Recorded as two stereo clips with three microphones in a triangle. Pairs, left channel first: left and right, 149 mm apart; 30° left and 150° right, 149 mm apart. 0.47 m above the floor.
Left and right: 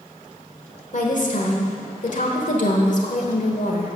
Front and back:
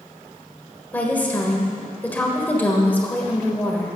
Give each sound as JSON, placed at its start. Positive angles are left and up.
{"t": 0.9, "sound": "a woman speaking", "azimuth_deg": 105, "distance_m": 1.3}